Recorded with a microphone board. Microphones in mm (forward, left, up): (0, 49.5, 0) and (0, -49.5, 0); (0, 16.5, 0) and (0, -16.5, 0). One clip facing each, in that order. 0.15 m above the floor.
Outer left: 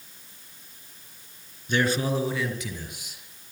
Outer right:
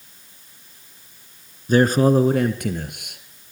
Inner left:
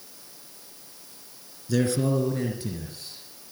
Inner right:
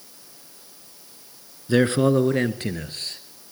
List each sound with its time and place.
1.7 s a man speaking: 40° right (ahead or behind), 2.5 m; by 3.5 s 65° right (ahead or behind), 4 m